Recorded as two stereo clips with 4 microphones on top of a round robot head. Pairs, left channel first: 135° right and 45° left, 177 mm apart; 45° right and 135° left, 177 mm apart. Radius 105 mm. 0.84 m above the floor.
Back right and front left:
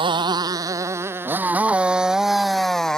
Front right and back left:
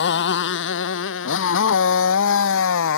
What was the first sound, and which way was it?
A motorcycle, 20° right.